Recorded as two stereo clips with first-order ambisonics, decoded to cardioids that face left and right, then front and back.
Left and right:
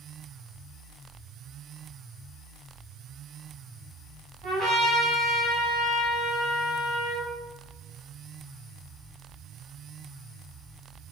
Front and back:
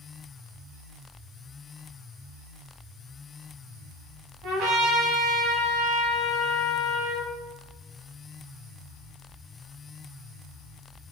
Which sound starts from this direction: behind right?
A trumpet, at 4.4 s.